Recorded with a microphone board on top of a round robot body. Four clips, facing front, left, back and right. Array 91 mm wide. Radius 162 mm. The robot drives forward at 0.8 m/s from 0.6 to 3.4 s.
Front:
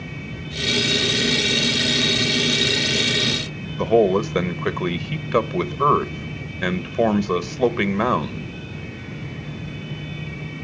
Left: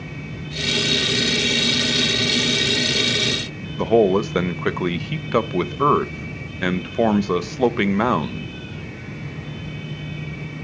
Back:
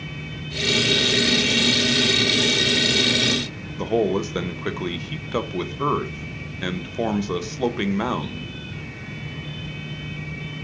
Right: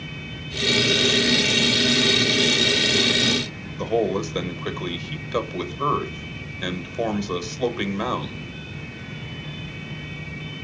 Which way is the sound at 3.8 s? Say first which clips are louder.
Left 6 dB, front 5 dB; 60° left.